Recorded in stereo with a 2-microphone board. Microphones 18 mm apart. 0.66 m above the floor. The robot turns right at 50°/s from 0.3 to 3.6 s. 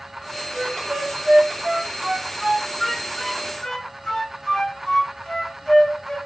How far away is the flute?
About 0.6 m.